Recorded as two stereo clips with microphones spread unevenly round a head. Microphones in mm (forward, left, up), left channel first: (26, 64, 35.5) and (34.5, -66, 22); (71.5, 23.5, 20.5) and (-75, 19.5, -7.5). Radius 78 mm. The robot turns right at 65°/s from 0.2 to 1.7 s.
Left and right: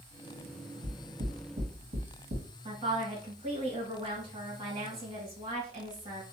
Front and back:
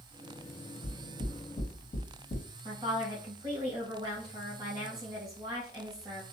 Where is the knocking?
110° right, 1.7 m; by 2.5 s 55° right, 1.7 m.